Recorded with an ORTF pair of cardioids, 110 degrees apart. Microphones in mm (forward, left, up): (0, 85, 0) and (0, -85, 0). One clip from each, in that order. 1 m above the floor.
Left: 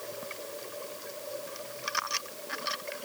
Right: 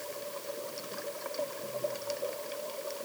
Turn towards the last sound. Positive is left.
No sound to turn to.